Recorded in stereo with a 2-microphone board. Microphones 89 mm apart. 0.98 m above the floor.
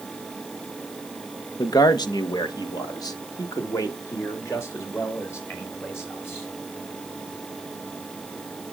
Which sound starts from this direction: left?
A man speaking, at 1.6 s.